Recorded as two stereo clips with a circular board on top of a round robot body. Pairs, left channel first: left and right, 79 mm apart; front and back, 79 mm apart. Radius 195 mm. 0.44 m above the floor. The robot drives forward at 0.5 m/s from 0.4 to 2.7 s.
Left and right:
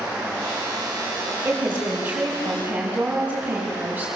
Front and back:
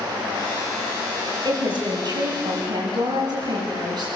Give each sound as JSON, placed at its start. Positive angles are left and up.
{"t": 1.4, "sound": "a woman speaking", "azimuth_deg": -155, "distance_m": 5.5}